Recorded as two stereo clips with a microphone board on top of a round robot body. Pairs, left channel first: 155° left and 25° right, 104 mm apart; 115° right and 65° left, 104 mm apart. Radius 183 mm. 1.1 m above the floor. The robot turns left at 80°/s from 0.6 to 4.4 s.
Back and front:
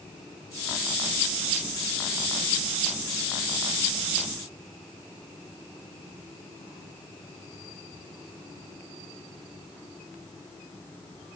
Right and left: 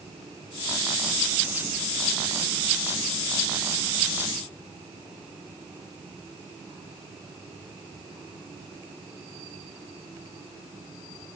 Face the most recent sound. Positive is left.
No sound to turn to.